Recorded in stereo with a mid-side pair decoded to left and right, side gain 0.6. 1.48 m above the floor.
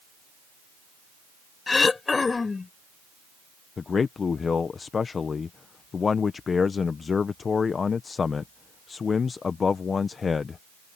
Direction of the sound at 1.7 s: 25° left.